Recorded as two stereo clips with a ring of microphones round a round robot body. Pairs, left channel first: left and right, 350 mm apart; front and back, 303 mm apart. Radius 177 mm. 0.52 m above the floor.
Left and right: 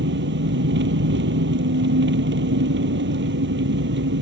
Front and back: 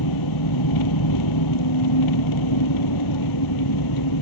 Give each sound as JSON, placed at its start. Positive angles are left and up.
{"t": 0.0, "sound": "an engine running", "azimuth_deg": -30}